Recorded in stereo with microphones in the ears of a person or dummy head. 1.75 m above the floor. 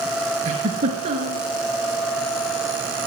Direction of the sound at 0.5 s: 35° right (ahead or behind).